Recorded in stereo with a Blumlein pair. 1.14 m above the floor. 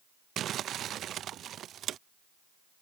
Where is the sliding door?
No sliding door in this recording.